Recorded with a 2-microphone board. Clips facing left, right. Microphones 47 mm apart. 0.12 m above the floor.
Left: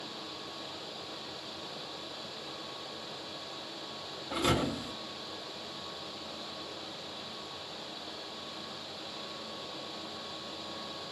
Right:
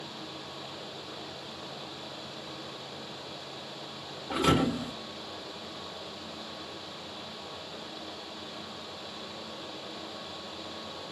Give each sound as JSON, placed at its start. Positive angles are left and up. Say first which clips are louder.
{"t": 4.3, "sound": "a thud", "louder": "right 4 dB", "side_deg": -85, "distance_m": 2.0}